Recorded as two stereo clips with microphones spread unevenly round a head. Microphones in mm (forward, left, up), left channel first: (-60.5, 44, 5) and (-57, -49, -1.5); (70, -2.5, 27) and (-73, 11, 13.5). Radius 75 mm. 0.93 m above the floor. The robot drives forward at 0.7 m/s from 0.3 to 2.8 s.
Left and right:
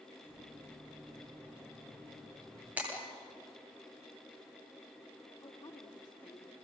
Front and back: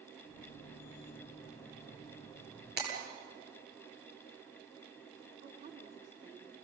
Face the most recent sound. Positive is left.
turn(degrees=135)